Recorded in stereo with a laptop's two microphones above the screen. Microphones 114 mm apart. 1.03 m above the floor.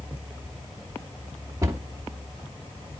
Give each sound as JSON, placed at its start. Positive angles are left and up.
{"t": 1.6, "sound": "a cupboard door", "side_deg": -25, "distance_m": 2.5}